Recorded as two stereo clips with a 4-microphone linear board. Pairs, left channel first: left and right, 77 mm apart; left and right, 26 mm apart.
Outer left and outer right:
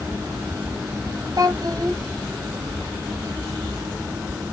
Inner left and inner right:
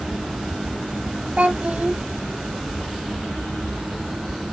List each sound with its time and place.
1.4 s a child speaking: 55° right (ahead or behind), 1.9 m